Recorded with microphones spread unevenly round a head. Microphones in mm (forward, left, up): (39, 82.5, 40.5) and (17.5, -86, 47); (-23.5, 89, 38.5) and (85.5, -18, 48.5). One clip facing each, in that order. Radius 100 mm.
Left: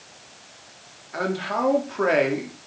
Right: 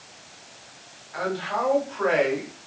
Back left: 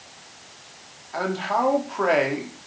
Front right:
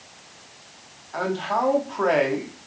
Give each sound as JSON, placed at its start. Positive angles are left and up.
{"t": 1.1, "sound": "a man speaking", "azimuth_deg": 50, "distance_m": 3.5}